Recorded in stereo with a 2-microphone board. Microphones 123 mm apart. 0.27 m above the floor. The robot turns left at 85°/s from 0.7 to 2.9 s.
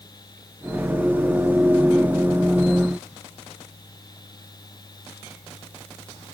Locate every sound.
Only background noise.